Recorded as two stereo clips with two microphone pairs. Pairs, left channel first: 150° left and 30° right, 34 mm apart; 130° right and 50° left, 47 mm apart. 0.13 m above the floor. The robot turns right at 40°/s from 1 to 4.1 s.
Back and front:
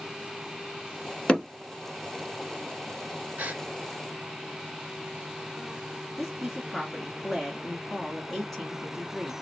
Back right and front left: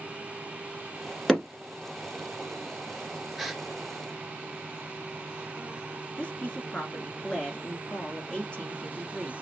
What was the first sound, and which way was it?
Hammering, 150° left.